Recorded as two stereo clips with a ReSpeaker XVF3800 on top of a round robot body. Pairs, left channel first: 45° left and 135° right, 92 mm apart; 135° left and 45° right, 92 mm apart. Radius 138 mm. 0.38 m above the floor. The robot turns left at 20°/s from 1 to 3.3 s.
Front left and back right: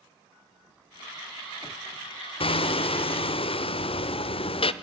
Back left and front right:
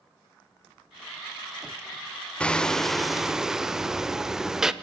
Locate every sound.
2.4 s hammering: 55° left, 0.8 m; by 4.7 s 40° left, 0.8 m